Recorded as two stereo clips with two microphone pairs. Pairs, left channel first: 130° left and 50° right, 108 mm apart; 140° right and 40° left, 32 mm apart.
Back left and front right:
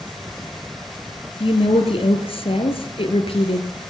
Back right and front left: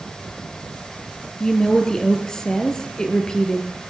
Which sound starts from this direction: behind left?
A woman speaking, at 1.4 s.